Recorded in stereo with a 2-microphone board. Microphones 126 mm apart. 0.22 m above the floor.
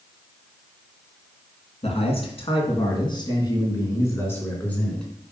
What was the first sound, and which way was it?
A man speaking, 55° left (ahead or behind).